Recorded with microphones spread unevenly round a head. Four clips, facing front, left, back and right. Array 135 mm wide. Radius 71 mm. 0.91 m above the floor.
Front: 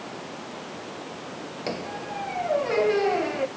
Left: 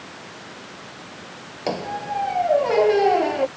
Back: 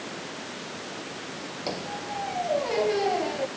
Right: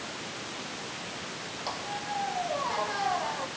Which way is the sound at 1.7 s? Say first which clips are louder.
Left 10 dB, front 1 dB; 80° left.